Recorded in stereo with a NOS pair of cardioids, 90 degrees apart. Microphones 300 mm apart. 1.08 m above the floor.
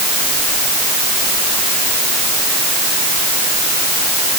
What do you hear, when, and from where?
Only background noise.